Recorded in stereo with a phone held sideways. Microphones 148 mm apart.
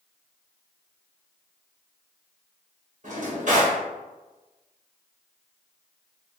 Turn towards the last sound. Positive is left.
turn(degrees=-55)  # may be behind; listen again after turning